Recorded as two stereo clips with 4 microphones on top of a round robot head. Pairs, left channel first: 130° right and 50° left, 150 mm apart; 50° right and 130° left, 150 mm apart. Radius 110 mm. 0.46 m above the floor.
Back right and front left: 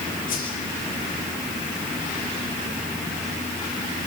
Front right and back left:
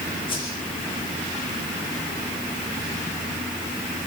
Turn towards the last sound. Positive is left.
turn(degrees=-105)